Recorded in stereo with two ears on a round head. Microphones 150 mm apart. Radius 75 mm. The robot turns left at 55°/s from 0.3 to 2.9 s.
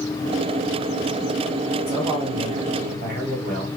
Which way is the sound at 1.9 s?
10° right.